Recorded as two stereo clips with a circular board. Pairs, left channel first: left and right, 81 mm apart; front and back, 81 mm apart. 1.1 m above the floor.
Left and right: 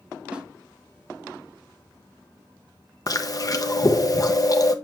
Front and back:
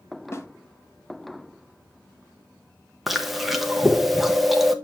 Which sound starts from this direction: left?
Chewing, at 3.1 s.